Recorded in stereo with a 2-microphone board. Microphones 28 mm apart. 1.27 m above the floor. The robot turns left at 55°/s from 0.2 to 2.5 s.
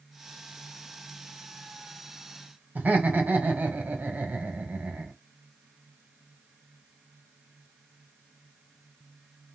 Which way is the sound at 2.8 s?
80° right.